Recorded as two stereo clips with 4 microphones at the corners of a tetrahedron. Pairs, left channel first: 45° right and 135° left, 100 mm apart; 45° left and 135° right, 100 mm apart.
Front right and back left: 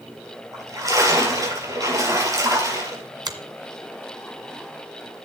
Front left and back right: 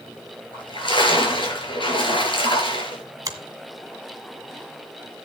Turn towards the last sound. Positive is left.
turn(degrees=175)